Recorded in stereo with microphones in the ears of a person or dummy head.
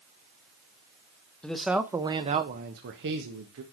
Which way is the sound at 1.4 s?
5° left (ahead or behind).